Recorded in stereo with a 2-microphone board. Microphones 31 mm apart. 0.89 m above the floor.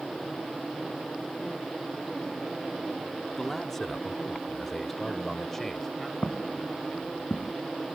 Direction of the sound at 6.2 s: 35° left (ahead or behind).